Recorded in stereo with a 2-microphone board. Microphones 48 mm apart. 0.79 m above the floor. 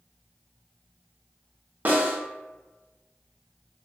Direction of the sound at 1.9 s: 40° right (ahead or behind).